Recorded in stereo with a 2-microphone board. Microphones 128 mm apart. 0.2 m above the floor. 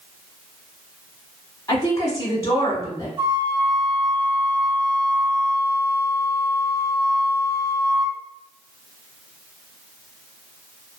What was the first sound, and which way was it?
A woman speaking, 25° left (ahead or behind).